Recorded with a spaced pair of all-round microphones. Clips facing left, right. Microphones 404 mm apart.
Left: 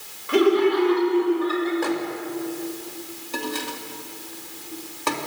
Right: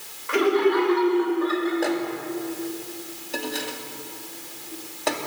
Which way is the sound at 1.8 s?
15° left (ahead or behind).